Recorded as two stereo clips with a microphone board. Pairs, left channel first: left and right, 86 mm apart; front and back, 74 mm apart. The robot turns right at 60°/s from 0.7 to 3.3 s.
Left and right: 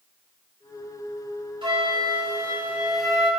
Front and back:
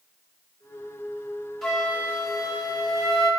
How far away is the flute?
About 4.5 m.